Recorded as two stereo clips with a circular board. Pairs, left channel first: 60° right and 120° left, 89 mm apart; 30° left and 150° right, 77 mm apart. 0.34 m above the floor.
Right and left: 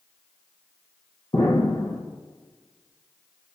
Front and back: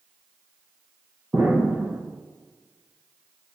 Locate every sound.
1.3 s an explosion: 80° right, 3 m